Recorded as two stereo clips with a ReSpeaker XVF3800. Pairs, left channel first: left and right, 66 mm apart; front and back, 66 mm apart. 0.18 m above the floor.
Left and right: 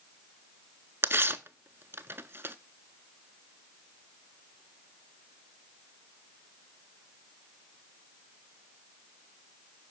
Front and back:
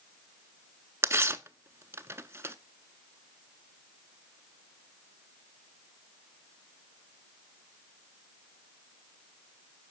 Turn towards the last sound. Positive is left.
turn(degrees=-135)